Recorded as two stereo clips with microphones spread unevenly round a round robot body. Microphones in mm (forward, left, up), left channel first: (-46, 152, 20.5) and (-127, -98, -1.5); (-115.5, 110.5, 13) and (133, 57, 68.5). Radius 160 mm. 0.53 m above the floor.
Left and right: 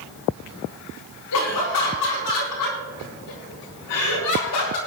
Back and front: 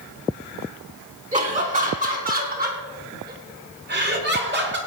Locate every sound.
1.3 s laughter: 50° left, 6 m; by 4.8 s 35° left, 6 m